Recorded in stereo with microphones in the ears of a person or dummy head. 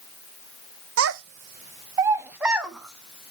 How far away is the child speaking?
About 0.7 m.